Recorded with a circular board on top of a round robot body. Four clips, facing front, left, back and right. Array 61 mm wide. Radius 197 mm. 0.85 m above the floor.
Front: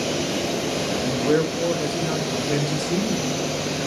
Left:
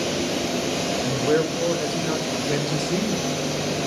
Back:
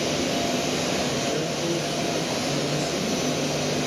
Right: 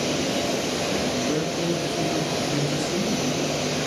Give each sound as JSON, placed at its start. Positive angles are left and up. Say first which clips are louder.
{"t": 1.0, "sound": "a man speaking", "louder": "left 3 dB, front 5 dB", "azimuth_deg": 55, "distance_m": 5.5}